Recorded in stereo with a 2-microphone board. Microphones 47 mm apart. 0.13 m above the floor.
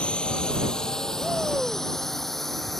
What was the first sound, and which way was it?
A drone, 20° left (ahead or behind).